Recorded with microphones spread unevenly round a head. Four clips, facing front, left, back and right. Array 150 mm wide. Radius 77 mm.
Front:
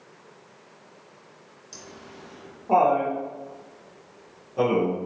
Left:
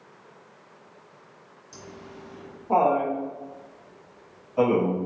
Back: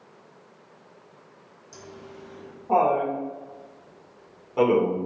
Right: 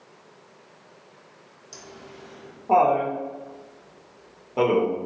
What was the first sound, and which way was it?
Laughter, 50° right.